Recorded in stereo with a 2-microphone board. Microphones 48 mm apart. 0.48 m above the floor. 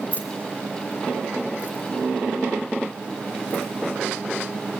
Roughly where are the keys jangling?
Left.